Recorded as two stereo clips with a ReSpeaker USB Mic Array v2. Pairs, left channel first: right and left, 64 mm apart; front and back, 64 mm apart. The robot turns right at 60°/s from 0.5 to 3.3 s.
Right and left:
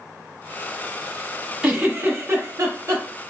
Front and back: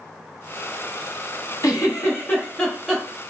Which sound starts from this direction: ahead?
A giggle, at 1.6 s.